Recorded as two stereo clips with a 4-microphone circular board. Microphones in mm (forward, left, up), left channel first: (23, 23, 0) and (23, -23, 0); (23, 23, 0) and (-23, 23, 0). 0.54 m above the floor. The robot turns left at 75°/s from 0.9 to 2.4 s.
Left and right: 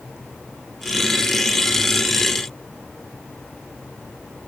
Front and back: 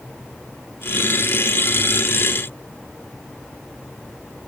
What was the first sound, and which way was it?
Only background noise.